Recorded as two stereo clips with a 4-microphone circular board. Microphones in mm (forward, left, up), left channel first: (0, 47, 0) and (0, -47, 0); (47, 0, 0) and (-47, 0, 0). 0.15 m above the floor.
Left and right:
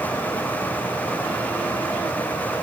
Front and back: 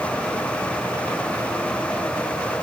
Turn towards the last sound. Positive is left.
No sound to turn to.